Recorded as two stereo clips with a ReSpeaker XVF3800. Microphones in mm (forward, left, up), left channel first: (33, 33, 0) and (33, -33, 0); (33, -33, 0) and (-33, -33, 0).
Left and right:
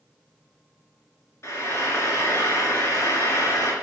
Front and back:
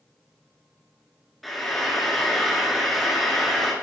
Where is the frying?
95° left, 2 m.